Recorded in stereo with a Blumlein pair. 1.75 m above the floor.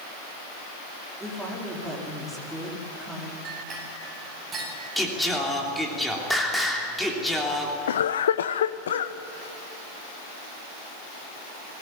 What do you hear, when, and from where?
1.2 s a woman speaking: 5° right, 5 m
3.5 s a clink: 30° right, 10 m
5.0 s singing: straight ahead, 3 m
7.9 s a cough: 65° left, 0.6 m